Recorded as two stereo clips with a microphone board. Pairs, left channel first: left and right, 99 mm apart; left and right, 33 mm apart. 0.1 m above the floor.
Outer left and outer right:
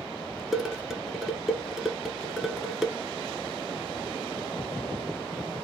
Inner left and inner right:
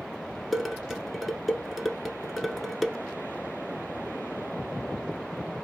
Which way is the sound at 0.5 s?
5° right (ahead or behind).